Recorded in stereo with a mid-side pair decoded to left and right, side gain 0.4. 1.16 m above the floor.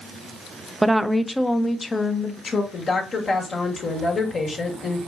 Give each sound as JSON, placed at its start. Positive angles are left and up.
{"t": 0.8, "sound": "a woman speaking", "azimuth_deg": -15, "distance_m": 0.6}
{"t": 2.7, "sound": "a woman speaking", "azimuth_deg": 55, "distance_m": 1.8}